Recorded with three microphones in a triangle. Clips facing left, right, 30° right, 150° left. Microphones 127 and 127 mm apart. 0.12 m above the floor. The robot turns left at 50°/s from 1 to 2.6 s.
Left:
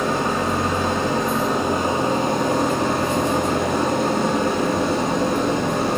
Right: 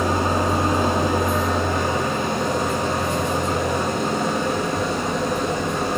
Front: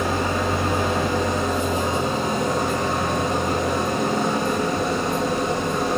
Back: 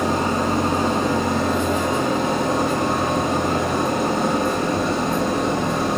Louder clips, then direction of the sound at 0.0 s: Right 1 dB, back 2 dB; 165° right.